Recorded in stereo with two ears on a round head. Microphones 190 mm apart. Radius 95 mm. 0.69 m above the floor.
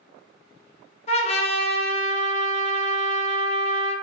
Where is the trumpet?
30° left (ahead or behind), 0.5 m.